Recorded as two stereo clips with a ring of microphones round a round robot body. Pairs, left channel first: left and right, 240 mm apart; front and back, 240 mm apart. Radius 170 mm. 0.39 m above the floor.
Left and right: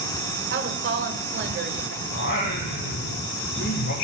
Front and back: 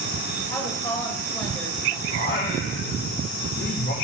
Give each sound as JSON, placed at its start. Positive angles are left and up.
{"t": 0.5, "sound": "a woman speaking", "azimuth_deg": -75, "distance_m": 1.5}
{"t": 2.1, "sound": "singing", "azimuth_deg": 55, "distance_m": 2.5}